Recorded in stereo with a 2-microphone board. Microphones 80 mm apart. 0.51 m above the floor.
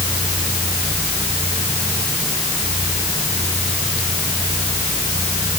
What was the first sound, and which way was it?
Only background noise.